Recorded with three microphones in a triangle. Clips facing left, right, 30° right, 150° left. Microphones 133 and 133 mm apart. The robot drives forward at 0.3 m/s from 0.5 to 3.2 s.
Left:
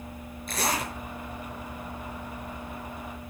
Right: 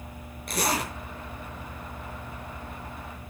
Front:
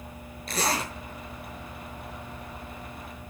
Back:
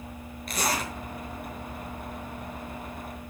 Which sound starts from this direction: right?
A zipper, at 0.5 s.